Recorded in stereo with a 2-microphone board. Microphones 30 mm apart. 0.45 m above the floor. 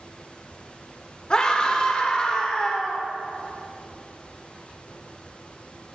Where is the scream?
25° left (ahead or behind), 1.0 m.